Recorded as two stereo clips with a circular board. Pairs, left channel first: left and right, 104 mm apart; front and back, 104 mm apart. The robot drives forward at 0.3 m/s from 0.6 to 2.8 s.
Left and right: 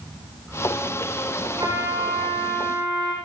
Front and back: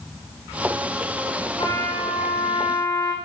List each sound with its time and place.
1.6 s a trumpet: 35° right, 5.5 m; by 3.1 s 40° right, 5.5 m